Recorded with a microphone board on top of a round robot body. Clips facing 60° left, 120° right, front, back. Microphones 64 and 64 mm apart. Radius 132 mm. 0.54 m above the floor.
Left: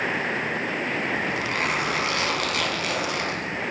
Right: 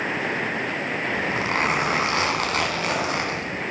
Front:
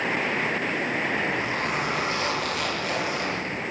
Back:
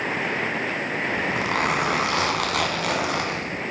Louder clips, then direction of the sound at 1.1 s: Right 2 dB, back 2 dB; 175° right.